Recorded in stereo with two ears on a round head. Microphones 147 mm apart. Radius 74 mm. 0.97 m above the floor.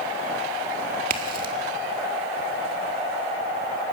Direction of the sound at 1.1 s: 55° right (ahead or behind).